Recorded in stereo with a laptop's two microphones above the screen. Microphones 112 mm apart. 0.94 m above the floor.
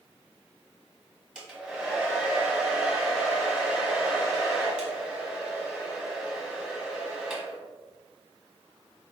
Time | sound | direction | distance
1.4 | a hair dryer | 10° right (ahead or behind) | 1.2 m